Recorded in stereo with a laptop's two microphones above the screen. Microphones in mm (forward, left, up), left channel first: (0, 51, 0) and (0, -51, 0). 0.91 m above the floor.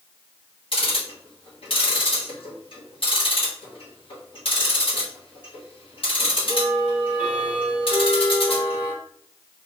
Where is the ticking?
60° left (ahead or behind), 1.4 m.